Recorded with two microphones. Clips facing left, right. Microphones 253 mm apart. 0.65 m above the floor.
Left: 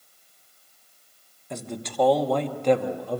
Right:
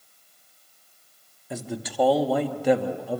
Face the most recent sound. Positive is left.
turn(degrees=-5)  # may be behind; listen again after turning